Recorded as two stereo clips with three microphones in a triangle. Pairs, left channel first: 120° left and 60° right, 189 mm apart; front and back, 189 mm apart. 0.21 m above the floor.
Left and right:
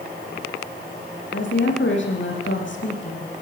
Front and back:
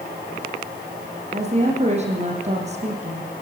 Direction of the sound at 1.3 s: 125° left.